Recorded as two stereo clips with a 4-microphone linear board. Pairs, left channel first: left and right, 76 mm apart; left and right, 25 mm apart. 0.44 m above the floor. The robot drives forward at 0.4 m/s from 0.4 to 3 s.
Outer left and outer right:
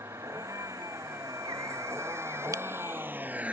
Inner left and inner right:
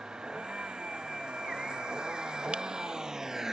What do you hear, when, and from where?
0.0 s a vehicle: 40° right (ahead or behind); by 3.5 s 15° right (ahead or behind)
2.5 s a camera shutter: 50° right (ahead or behind); by 2.6 s 45° right (ahead or behind)